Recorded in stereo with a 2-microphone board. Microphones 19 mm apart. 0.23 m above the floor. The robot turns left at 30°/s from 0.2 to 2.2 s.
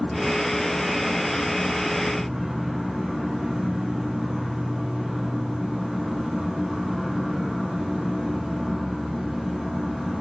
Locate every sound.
0.0 s an insect: 30° left, 0.8 m; by 10.2 s 30° right, 0.8 m